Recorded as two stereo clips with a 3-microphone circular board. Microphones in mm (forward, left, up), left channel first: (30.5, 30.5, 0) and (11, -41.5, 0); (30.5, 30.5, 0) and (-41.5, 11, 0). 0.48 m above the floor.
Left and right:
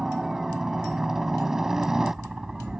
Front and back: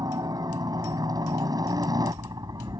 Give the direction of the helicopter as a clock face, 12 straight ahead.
6 o'clock.